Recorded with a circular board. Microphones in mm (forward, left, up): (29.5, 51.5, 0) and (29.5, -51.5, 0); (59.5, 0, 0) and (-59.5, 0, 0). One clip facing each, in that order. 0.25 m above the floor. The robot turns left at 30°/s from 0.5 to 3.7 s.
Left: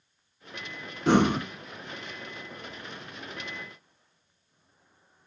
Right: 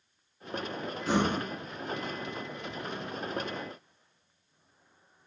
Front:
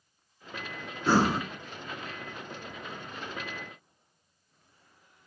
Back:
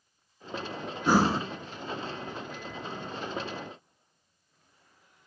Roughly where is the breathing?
Left.